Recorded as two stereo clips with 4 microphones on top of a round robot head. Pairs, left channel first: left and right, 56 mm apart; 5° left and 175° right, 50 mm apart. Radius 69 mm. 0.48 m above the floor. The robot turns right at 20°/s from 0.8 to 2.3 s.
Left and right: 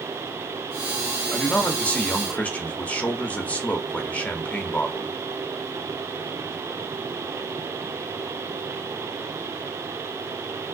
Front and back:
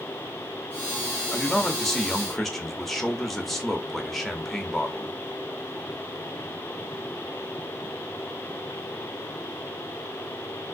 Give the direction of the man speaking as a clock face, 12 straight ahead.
10 o'clock.